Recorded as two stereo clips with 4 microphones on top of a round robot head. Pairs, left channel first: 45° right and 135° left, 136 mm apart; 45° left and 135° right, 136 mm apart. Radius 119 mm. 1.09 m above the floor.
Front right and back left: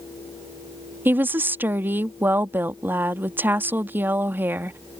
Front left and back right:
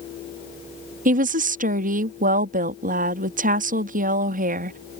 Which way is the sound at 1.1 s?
150° right.